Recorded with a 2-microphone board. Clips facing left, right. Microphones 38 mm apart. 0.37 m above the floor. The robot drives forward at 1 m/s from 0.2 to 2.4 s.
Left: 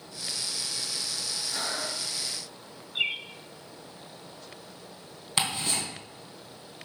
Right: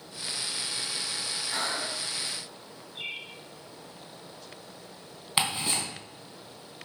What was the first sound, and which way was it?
Breathing, 55° right (ahead or behind).